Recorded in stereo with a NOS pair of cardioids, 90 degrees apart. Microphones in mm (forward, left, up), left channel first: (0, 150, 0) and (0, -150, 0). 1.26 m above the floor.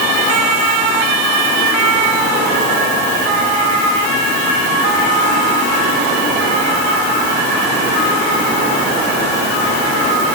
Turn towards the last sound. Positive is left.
No sound to turn to.